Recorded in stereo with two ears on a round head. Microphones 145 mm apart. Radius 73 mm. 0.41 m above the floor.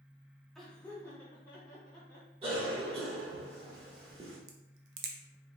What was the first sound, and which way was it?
Laughter, centre (ahead or behind).